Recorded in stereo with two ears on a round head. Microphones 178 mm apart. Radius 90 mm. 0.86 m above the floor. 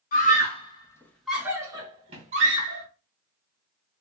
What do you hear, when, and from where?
0.1 s a scream: 45° left (ahead or behind), 0.8 m; by 2.8 s 45° right (ahead or behind), 1.2 m